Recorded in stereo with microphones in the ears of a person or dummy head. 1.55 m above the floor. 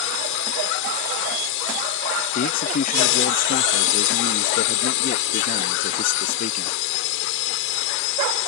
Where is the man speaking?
45° left (ahead or behind).